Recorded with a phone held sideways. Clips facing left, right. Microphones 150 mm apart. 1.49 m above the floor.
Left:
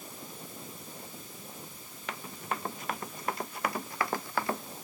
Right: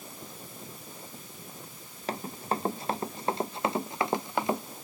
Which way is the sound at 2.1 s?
35° right (ahead or behind).